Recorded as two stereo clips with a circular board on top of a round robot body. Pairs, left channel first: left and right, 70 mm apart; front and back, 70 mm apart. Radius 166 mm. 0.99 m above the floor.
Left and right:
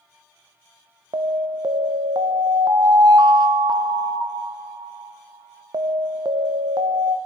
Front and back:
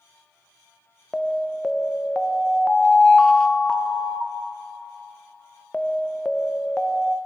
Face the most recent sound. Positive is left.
turn(degrees=-80)